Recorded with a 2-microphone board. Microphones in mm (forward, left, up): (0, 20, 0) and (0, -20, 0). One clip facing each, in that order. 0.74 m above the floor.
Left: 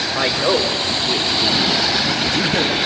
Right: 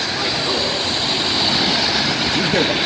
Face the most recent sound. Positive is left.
turn(degrees=-30)  # may be behind; listen again after turning